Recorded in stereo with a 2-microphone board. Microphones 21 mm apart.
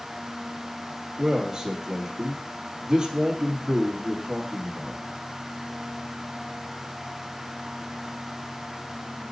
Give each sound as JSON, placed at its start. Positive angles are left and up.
{"t": 1.2, "sound": "a man speaking", "side_deg": -25, "distance_m": 1.8}